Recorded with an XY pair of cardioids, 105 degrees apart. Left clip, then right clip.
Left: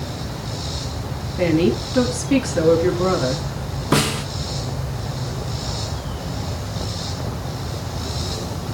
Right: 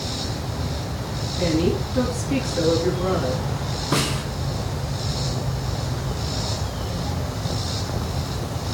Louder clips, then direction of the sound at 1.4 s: Left 4 dB; 45° left.